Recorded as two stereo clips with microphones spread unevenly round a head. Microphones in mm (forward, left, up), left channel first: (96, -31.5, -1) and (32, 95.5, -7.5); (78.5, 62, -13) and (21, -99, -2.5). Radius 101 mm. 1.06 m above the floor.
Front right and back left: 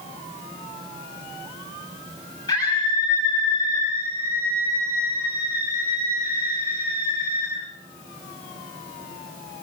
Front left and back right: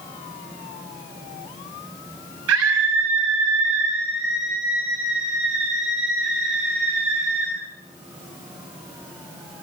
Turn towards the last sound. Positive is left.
turn(degrees=-135)